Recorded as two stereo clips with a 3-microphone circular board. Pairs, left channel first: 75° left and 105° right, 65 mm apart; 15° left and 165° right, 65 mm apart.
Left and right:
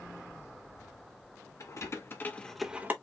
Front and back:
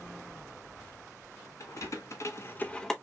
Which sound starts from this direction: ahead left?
Keys jangling, at 1.6 s.